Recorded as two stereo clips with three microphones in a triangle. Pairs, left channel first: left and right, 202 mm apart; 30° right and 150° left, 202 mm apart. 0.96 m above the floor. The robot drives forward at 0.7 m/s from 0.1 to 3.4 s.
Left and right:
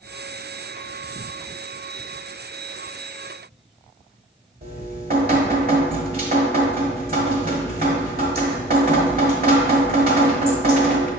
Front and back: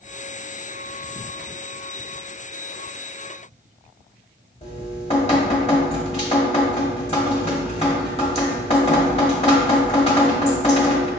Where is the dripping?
75° right, 1.0 m.